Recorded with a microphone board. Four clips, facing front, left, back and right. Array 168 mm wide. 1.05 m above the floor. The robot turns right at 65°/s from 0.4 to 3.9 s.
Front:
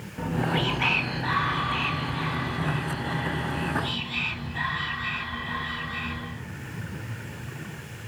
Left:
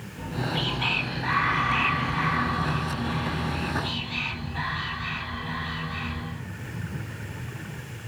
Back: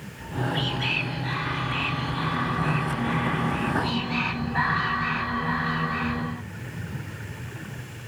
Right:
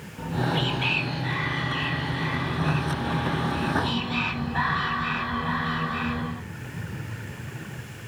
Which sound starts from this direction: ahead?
Whispering, at 0.2 s.